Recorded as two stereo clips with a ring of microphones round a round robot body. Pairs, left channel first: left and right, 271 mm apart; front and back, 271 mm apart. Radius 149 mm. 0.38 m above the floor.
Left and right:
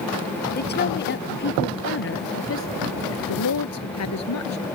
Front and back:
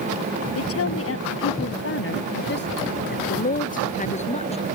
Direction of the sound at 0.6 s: 35° left.